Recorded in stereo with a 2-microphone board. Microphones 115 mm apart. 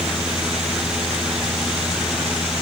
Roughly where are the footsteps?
No footsteps in this recording.